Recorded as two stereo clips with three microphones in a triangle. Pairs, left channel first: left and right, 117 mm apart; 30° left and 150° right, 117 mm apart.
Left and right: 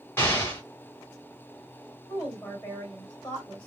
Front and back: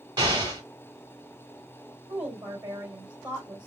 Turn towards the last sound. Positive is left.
turn(degrees=170)